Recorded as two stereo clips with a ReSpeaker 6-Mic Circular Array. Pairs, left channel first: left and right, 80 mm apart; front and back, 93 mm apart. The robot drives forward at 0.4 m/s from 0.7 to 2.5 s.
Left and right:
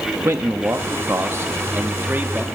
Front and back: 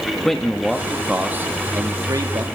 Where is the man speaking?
85° right, 0.6 m; by 2.5 s 150° right, 0.9 m.